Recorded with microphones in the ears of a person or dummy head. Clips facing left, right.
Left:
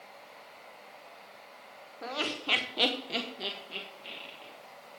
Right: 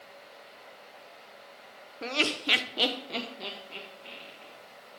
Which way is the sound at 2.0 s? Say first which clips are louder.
Right 4 dB; 30° right (ahead or behind).